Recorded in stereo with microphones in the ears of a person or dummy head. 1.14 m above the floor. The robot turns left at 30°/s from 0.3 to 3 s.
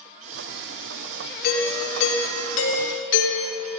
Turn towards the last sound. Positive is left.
turn(degrees=80)